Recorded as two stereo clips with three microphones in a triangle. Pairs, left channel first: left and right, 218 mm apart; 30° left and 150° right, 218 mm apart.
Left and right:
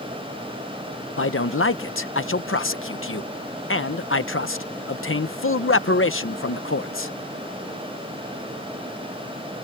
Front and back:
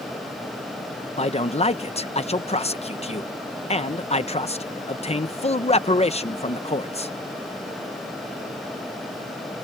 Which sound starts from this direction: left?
A man speaking, at 1.2 s.